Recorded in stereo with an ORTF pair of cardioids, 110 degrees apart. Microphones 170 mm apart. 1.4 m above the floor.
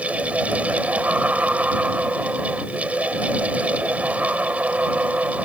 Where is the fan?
10° right.